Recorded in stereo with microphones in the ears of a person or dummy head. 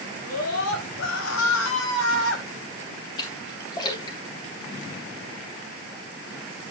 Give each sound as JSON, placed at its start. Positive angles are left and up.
{"t": 0.2, "sound": "a scream", "side_deg": 85, "distance_m": 4.5}
{"t": 3.2, "sound": "a splash", "side_deg": 25, "distance_m": 3.5}